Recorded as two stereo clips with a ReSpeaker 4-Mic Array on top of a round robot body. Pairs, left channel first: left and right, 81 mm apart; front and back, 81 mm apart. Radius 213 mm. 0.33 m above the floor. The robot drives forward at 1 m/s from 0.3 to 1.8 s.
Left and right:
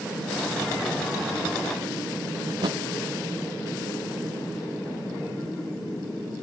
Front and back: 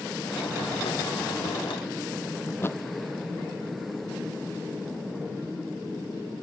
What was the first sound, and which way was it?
A thud, 60° right.